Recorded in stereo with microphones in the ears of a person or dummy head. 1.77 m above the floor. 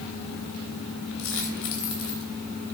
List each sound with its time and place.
1.2 s a dropped coin: 65° left (ahead or behind), 3 m